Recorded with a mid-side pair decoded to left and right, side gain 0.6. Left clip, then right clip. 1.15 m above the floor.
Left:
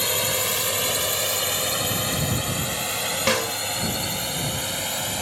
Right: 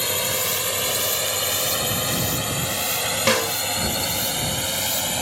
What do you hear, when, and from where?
0.0 s a drone: 5° left; by 5.2 s 15° right
3.3 s a snare drum: 10° right